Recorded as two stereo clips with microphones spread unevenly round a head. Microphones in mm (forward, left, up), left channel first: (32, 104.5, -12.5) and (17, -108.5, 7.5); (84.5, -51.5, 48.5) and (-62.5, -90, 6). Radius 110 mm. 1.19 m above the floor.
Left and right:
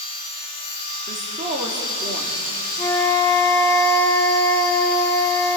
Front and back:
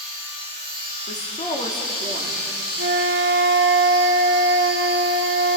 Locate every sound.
0.0 s a machine running: 35° left, 9.5 m
1.1 s a woman speaking: 35° right, 3.5 m
2.8 s a flute: 170° left, 1.2 m